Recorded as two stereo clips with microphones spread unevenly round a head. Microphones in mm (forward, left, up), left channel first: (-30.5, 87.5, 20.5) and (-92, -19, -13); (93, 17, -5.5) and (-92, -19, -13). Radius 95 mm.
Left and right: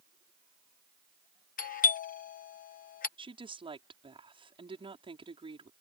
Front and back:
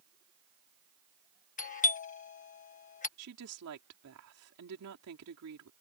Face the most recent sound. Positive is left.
turn(degrees=-170)